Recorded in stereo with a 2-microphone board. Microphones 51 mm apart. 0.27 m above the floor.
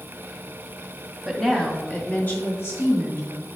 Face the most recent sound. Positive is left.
turn(degrees=60)  # may be behind; listen again after turning